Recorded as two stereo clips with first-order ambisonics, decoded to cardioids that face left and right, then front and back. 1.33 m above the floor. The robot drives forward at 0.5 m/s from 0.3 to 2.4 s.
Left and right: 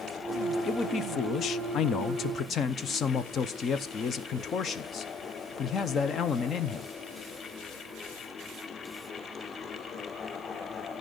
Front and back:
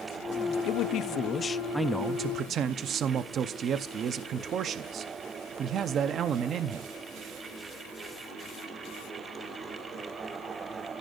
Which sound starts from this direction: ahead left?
A man speaking, at 0.7 s.